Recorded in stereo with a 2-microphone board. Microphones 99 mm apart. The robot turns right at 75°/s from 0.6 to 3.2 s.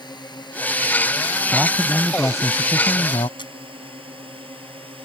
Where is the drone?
50° left (ahead or behind); by 5.0 s 75° right (ahead or behind).